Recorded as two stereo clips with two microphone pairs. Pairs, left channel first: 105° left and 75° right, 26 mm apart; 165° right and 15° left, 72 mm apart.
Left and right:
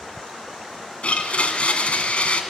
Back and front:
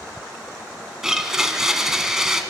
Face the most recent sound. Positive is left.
turn(degrees=95)